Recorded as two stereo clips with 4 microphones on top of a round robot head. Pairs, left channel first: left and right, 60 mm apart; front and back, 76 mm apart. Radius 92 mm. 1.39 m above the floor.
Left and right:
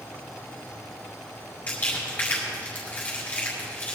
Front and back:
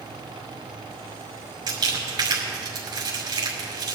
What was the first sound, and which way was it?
Crumpling, 160° left.